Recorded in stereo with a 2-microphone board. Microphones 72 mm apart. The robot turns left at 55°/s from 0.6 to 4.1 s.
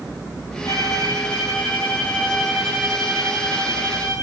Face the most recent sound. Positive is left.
turn(degrees=-85)